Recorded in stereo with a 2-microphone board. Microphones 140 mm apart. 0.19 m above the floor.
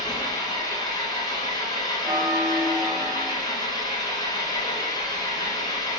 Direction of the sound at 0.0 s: 30° left (ahead or behind).